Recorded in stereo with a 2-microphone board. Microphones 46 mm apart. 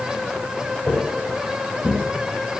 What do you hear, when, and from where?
0.9 s footsteps: 25° left (ahead or behind), 3 m; by 2.6 s 5° left (ahead or behind), 2.5 m